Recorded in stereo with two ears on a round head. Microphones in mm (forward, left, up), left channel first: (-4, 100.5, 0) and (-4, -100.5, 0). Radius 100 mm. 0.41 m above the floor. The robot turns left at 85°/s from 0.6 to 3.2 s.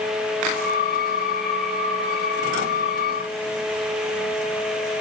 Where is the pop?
No pop in this recording.